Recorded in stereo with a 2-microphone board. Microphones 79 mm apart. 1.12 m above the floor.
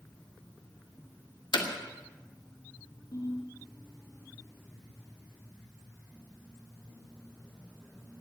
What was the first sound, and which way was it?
Hammering, 85° left.